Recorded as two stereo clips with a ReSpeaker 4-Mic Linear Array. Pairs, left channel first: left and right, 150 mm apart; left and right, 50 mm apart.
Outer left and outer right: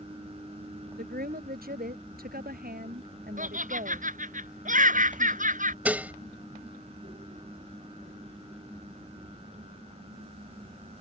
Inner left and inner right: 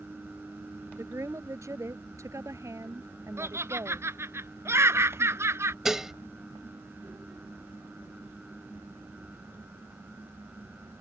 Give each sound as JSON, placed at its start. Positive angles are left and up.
{"t": 0.9, "sound": "a woman speaking", "side_deg": -85}
{"t": 3.4, "sound": "laughter", "side_deg": -60}
{"t": 5.8, "sound": "dishes clattering", "side_deg": -10}